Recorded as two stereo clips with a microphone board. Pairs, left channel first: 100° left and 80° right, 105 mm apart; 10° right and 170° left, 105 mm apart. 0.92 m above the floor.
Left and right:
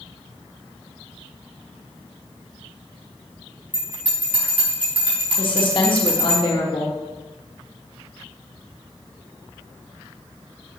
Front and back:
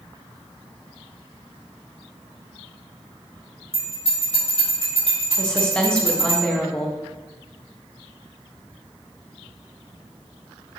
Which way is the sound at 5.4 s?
70° left.